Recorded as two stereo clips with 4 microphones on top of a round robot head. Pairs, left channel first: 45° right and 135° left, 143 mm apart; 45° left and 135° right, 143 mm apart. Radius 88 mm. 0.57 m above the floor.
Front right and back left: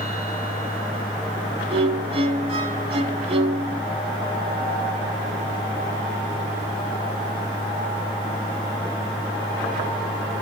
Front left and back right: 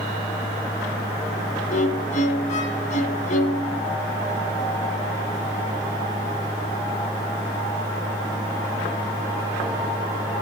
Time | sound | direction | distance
1.7 | a violin | 85° left | 1.5 m